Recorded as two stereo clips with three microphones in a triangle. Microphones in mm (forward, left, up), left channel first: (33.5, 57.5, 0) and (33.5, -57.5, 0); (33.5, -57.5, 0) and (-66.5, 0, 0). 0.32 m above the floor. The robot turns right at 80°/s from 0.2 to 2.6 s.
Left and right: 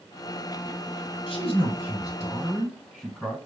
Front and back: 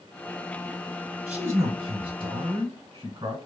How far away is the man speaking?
About 1.5 m.